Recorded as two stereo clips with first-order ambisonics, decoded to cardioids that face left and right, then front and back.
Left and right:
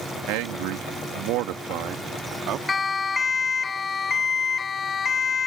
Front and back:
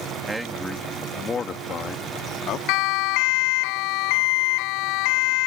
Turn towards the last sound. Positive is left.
turn(degrees=20)